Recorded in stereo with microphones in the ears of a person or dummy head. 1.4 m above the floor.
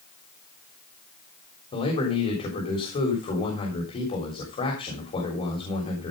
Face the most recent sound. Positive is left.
turn(degrees=35)  # may be behind; listen again after turning